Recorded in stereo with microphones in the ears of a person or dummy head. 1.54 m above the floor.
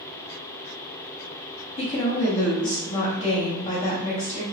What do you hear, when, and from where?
1.8 s a woman speaking: 35° left (ahead or behind), 1.0 m